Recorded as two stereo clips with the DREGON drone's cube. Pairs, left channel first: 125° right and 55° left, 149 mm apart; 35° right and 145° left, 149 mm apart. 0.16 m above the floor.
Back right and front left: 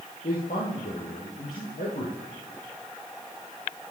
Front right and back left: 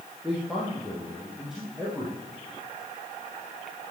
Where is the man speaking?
125° right, 4 m.